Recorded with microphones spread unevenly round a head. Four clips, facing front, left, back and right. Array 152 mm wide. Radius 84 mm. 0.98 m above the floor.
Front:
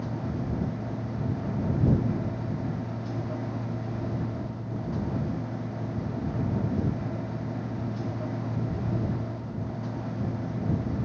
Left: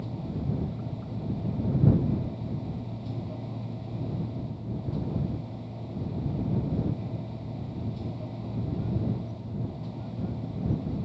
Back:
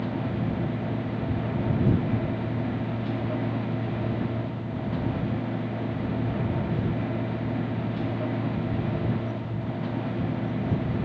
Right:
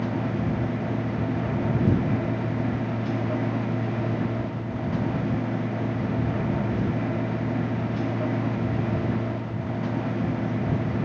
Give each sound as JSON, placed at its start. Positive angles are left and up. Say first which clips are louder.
{"t": 0.0, "sound": "a machine running", "louder": "right 8 dB, back 4 dB", "azimuth_deg": -115}